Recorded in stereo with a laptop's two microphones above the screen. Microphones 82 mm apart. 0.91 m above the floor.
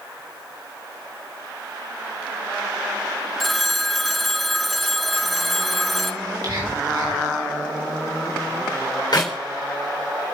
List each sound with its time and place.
3.4 s a phone ringing: centre (ahead or behind), 0.9 m
6.2 s whispering: 55° right (ahead or behind), 4 m
9.1 s a clap: 60° left (ahead or behind), 3 m